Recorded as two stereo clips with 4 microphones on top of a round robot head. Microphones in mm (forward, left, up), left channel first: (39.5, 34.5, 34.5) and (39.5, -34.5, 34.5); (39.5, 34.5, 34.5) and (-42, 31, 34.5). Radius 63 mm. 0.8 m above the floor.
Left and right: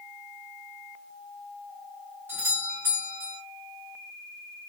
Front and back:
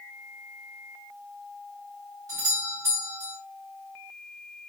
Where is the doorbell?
145° right, 2.5 m.